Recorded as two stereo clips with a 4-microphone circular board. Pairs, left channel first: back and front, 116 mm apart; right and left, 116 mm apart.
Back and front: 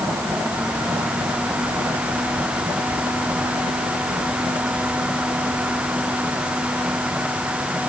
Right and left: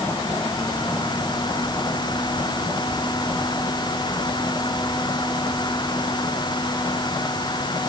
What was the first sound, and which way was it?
Only background noise.